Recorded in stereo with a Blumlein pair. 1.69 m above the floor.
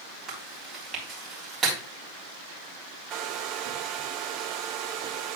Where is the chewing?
25° right, 3.5 m.